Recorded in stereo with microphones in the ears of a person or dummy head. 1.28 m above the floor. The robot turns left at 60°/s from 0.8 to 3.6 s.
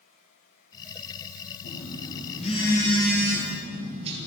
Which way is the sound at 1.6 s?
85° left.